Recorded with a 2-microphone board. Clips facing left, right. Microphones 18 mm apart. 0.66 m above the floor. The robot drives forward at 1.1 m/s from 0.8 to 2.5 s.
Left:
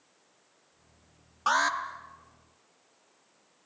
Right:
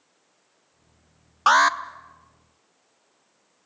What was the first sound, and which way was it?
An alarm, 35° right (ahead or behind).